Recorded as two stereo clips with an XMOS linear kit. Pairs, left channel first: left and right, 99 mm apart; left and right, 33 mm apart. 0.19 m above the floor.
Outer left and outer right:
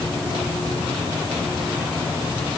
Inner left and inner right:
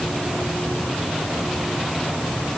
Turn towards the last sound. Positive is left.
No sound to turn to.